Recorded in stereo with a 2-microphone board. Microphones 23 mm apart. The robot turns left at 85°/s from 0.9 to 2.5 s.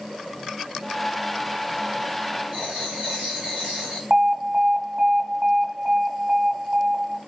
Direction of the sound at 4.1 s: 75° right (ahead or behind).